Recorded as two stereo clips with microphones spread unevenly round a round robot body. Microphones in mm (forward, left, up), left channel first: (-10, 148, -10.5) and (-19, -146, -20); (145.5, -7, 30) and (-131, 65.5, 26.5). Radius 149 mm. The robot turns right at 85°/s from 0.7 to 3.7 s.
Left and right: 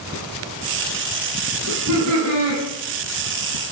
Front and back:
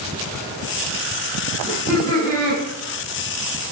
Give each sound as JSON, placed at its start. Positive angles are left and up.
{"t": 1.7, "sound": "laughter", "azimuth_deg": -125, "distance_m": 1.7}